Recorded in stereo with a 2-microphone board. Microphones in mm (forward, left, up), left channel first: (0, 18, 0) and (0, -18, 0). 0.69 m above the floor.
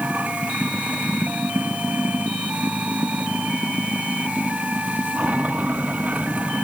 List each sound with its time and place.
0.0 s running water: 45° right (ahead or behind)